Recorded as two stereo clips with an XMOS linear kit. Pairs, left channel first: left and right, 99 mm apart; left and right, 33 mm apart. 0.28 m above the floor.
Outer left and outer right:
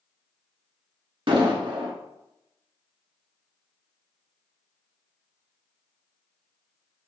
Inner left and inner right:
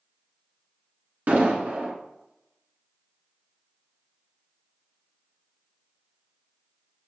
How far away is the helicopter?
I don't hear a helicopter.